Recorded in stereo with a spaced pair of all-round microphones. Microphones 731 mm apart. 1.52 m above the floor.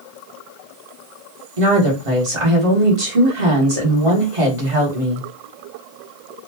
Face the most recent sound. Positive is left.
turn(degrees=-45)  # may be behind; listen again after turning